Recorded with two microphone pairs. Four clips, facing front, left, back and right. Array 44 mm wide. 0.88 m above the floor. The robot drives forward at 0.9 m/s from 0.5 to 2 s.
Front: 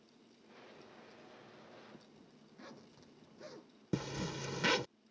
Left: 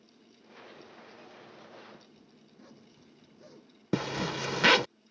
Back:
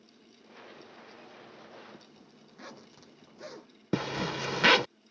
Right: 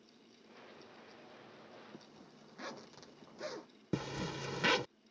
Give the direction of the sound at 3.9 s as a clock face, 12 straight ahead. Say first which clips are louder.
Left 8 dB, back 8 dB; 7 o'clock.